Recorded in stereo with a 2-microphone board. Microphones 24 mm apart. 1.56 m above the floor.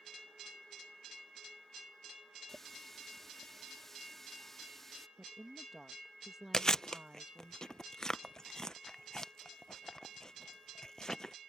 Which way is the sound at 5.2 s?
10° right (ahead or behind).